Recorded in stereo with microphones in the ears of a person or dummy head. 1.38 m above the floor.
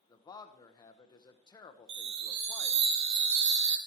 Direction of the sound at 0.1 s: 30° left (ahead or behind).